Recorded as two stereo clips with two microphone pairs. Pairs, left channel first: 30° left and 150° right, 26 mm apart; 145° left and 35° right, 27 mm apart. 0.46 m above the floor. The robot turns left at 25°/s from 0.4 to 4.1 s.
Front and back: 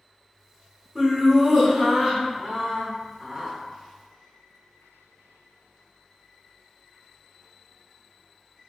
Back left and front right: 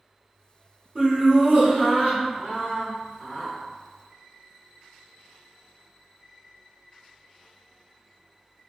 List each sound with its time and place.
0.9 s laughter: 50° right, 1.6 m; by 3.5 s 115° right, 1.6 m